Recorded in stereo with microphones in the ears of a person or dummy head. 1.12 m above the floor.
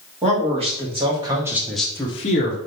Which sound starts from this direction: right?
A man speaking, at 0.2 s.